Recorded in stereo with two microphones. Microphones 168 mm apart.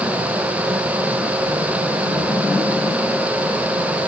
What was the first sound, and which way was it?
Only background noise.